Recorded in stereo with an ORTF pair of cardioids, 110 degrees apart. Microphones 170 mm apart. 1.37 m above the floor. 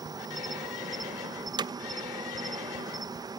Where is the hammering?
25° right, 1.1 m.